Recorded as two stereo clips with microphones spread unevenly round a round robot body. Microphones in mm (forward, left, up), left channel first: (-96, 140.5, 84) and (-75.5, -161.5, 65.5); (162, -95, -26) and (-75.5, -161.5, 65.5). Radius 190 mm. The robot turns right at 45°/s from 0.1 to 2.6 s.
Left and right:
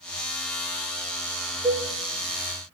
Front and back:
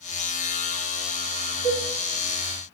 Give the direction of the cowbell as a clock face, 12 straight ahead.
6 o'clock.